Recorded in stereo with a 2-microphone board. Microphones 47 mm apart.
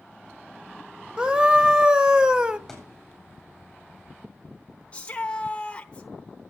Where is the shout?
25° left (ahead or behind), 1.0 m.